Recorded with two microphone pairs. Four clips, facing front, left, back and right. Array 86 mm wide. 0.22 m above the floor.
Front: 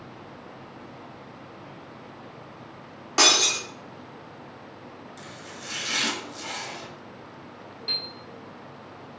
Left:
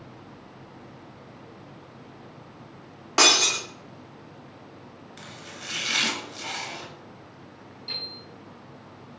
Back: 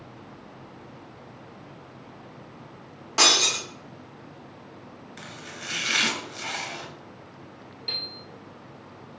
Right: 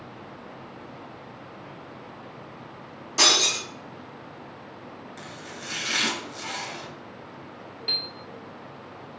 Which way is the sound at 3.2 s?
80° left.